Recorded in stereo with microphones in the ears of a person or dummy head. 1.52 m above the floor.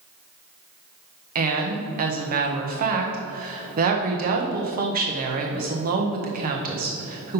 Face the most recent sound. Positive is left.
turn(degrees=-45)  # may be behind; listen again after turning